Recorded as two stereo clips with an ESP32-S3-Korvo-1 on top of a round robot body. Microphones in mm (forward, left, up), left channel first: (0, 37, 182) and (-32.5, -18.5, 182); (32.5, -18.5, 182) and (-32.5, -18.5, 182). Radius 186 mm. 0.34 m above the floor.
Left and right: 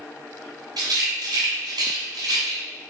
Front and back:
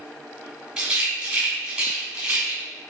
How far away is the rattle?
About 2.5 m.